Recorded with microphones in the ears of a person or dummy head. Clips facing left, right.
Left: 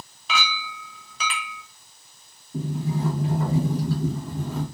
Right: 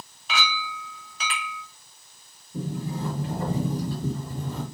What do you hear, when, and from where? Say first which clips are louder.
0.3 s a clink: left 1 dB; 65° left (ahead or behind), 0.5 m
2.5 s a sliding door: left 3 dB; 40° left (ahead or behind), 1.6 m